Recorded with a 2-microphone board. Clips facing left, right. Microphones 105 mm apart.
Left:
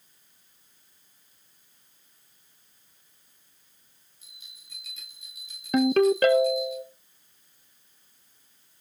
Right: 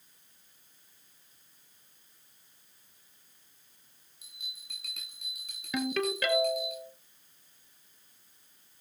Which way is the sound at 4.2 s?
70° right (ahead or behind).